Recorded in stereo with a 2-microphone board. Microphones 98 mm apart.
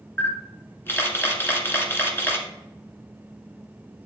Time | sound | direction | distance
0.2 | a camera shutter | 25° left (ahead or behind) | 1.7 m